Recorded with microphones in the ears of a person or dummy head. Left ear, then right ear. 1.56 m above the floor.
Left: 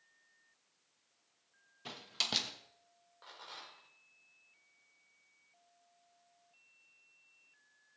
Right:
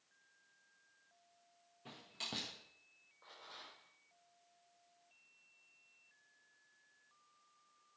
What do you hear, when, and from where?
1.9 s a door slam: 50° left (ahead or behind), 1.3 m
3.2 s a rattle: 80° left, 4.5 m